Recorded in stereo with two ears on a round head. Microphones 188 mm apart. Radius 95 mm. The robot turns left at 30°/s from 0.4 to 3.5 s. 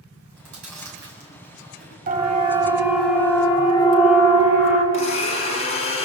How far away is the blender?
About 4.5 m.